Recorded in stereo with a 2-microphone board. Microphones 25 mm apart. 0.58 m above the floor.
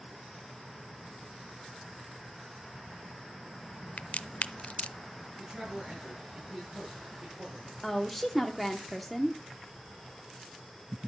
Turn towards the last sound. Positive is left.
turn(degrees=-5)  # may be behind; listen again after turning